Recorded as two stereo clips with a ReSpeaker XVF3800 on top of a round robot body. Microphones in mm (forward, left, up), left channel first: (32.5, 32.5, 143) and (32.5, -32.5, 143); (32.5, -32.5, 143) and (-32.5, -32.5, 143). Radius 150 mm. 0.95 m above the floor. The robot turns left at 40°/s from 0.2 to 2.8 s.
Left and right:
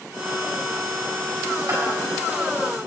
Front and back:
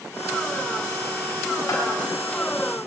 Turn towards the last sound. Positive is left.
turn(degrees=-85)